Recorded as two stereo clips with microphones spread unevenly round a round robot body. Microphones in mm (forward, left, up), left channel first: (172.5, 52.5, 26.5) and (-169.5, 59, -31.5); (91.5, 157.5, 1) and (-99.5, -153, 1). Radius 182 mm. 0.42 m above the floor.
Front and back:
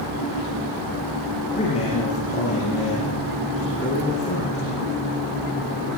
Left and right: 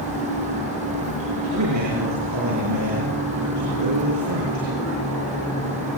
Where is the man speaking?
75° right, 8.5 m.